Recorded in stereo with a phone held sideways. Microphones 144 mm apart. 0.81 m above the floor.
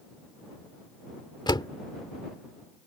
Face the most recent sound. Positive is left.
turn(degrees=30)  # may be behind; listen again after turning